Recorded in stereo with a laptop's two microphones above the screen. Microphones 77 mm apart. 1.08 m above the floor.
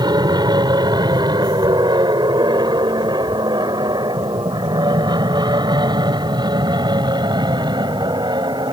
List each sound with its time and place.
0.0 s an aircraft: 65° right (ahead or behind); by 8.7 s 70° right (ahead or behind)